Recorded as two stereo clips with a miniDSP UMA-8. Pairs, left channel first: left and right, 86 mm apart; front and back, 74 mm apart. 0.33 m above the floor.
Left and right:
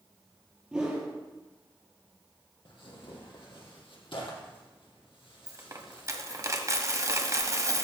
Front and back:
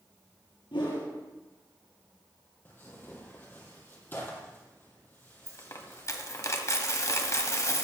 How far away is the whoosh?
About 3 m.